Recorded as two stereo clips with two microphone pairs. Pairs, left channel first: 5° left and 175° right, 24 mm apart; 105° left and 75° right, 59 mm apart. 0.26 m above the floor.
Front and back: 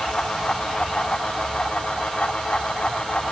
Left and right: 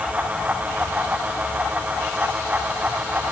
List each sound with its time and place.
Only background noise.